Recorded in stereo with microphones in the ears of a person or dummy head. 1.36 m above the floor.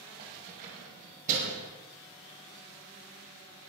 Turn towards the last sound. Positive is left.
turn(degrees=-45)  # may be behind; listen again after turning